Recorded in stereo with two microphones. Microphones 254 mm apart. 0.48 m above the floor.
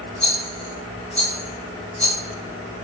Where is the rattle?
25° left (ahead or behind), 1.4 m.